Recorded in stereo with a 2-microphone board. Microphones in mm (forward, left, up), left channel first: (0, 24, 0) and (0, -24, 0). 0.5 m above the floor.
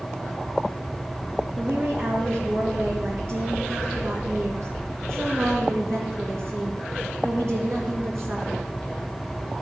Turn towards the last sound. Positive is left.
turn(degrees=-70)  # may be behind; listen again after turning